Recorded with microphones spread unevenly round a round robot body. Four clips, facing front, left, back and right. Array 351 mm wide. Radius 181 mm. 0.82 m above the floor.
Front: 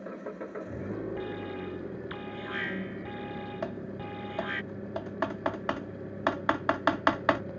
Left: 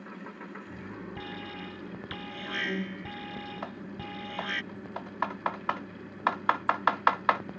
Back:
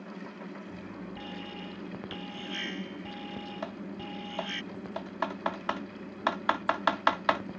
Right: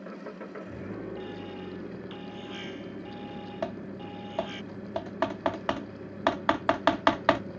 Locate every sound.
0.0 s an engine running: 15° right
1.2 s an alarm: 65° left
3.6 s typing on a keyboard: 60° right